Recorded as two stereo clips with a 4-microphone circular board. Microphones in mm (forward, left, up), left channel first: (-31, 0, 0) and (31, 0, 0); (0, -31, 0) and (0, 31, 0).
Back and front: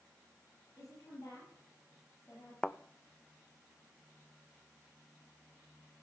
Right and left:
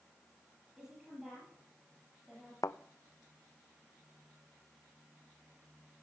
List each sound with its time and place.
0.8 s a woman speaking: 175° left, 5.5 m
2.6 s a thud: 100° right, 0.5 m